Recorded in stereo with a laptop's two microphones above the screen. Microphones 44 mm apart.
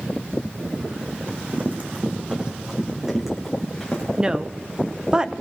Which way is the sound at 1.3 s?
60° right (ahead or behind).